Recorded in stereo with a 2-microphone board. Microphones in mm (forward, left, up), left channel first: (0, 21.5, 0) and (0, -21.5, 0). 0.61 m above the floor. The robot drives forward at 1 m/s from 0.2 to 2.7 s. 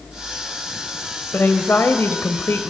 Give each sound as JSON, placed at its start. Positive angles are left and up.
{"t": 1.3, "sound": "a woman speaking", "side_deg": 65, "distance_m": 2.5}